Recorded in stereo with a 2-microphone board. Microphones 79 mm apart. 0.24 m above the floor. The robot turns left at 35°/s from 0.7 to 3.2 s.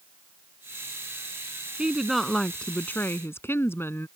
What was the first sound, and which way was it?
A woman speaking, 165° right.